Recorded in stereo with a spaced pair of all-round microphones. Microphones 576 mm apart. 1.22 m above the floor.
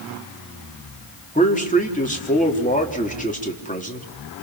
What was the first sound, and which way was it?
A man speaking, 15° left (ahead or behind).